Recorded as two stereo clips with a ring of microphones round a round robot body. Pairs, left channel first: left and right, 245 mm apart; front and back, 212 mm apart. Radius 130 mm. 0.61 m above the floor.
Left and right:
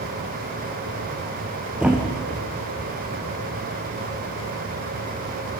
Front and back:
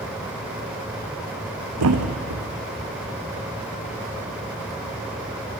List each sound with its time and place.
1.8 s a thud: 175° right, 2 m